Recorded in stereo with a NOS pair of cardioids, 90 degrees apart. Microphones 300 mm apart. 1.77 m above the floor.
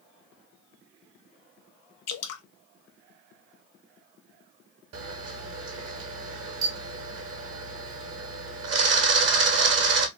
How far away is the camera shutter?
About 1.0 m.